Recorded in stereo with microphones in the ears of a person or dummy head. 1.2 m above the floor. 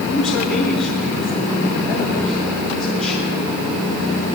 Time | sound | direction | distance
0.1 | a man speaking | centre (ahead or behind) | 7 m